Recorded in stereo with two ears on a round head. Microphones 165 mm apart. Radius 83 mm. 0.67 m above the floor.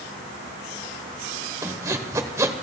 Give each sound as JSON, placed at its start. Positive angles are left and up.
{"t": 1.6, "sound": "sawing", "side_deg": -15, "distance_m": 1.0}